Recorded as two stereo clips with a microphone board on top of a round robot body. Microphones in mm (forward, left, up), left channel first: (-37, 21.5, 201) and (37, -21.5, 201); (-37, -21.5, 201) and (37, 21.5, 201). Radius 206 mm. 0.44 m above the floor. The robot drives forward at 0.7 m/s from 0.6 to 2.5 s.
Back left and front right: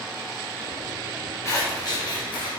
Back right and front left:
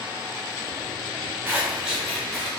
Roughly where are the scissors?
Left.